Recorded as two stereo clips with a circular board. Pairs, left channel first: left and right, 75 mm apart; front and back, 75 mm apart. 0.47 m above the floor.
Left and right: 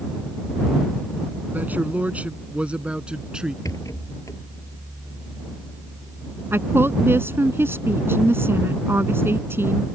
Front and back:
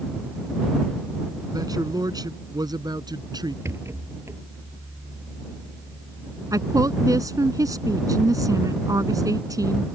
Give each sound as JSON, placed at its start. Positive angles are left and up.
{"t": 1.5, "sound": "a man speaking", "azimuth_deg": -155}
{"t": 3.6, "sound": "a rattle", "azimuth_deg": 130}
{"t": 6.5, "sound": "a woman speaking", "azimuth_deg": -145}